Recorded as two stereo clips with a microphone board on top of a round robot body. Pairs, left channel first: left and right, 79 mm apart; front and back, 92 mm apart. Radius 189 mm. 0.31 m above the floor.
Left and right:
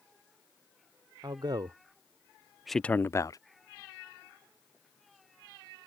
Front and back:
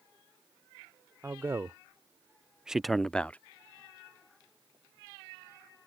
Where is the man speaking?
115° right; by 3.4 s 70° left.